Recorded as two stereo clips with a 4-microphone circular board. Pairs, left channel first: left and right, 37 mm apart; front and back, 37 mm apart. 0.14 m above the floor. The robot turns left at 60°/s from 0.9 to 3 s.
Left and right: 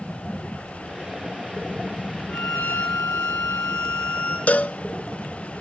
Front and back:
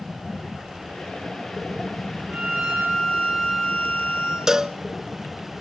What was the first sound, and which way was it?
A violin, 125° left.